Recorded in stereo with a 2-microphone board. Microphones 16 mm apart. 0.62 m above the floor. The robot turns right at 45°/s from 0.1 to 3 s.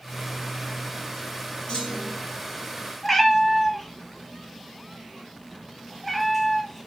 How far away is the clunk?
About 3 m.